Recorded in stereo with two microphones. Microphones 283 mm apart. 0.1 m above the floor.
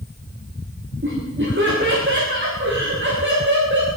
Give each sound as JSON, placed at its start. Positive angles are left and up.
{"t": 1.0, "sound": "laughter", "side_deg": -40, "distance_m": 9.0}